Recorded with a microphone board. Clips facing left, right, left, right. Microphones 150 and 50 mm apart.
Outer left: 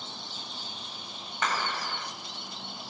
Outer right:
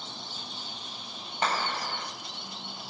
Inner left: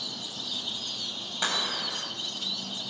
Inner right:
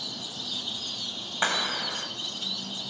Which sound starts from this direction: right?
A clap, at 1.4 s.